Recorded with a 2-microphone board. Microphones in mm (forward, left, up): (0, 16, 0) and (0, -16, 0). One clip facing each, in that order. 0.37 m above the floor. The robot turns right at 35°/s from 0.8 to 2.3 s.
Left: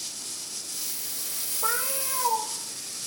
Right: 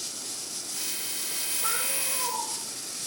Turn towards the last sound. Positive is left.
turn(degrees=60)  # may be behind; listen again after turning